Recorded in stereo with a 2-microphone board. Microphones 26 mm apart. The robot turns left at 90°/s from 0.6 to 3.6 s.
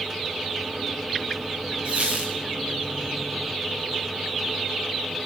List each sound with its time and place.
1.9 s a squeak: 45° right, 5.5 m; by 2.4 s 90° right, 5.5 m